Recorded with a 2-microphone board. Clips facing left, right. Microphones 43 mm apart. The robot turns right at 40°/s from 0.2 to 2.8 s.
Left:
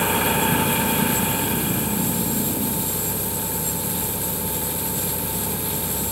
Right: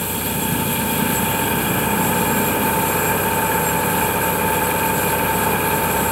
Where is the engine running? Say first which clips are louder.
Left 3 dB; 155° left; by 6.1 s 100° right.